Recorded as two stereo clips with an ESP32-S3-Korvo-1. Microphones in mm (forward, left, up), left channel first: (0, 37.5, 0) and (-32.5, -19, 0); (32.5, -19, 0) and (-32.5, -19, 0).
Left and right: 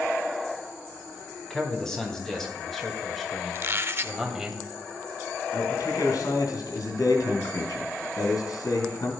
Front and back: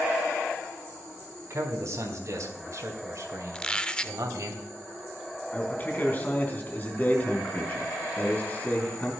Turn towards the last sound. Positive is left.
turn(degrees=60)